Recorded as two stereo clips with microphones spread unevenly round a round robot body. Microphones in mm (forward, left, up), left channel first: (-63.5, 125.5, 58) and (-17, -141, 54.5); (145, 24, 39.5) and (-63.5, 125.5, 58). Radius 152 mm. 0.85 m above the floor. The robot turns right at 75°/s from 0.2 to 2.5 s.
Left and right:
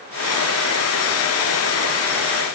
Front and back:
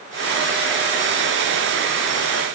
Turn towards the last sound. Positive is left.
No sound to turn to.